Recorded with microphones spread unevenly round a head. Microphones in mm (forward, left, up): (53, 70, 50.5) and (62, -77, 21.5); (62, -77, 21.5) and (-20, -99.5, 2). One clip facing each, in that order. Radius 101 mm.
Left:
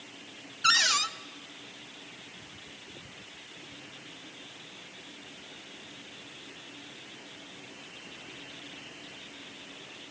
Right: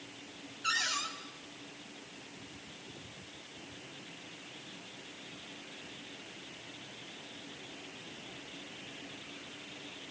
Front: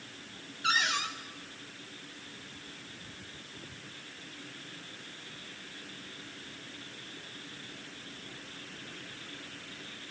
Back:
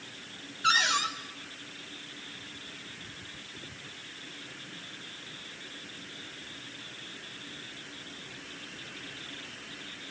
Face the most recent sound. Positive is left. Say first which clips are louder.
# left 8 dB, back 4 dB
turn(degrees=120)